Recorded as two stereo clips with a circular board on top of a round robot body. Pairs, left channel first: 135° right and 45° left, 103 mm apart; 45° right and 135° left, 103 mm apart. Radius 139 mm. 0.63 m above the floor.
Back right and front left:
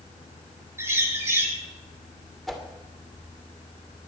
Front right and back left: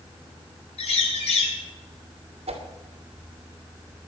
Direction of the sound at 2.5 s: 135° left.